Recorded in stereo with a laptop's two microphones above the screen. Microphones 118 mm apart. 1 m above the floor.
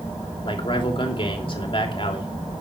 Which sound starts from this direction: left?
A man speaking, at 0.5 s.